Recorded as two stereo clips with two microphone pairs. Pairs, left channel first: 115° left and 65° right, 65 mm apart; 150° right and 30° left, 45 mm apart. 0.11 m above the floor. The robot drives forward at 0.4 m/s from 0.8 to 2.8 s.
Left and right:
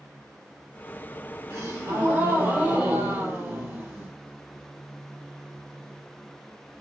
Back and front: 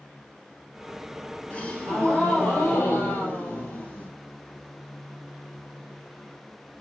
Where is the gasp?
85° right, 1.9 m; by 4.1 s 100° right, 1.9 m.